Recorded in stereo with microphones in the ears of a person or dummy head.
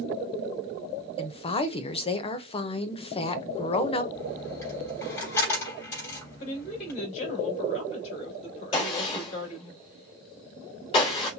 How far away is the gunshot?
About 2.5 m.